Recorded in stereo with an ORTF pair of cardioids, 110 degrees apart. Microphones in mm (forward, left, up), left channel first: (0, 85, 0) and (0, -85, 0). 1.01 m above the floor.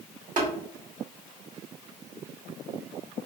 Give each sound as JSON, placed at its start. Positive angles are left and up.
{"t": 0.4, "sound": "tapping", "azimuth_deg": -50, "distance_m": 1.4}